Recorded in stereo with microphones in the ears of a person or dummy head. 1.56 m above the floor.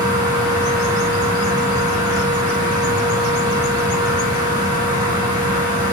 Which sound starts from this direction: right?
A fan, at 0.0 s.